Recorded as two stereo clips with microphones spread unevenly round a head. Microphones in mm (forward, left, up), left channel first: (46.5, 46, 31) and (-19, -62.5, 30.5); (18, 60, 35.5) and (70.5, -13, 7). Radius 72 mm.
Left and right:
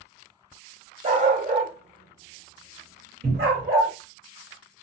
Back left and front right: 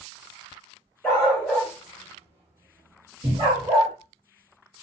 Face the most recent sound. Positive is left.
turn(degrees=-100)